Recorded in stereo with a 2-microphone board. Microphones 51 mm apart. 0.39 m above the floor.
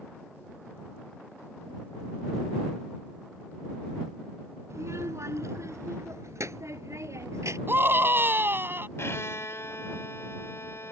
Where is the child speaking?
70° right (ahead or behind).